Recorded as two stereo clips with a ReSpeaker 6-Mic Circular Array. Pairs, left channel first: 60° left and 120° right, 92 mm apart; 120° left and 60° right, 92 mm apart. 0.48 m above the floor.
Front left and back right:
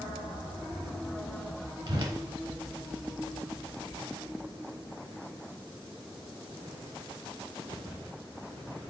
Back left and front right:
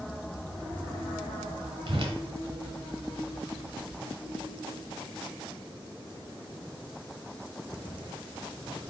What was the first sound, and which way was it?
A whoosh, 85° right.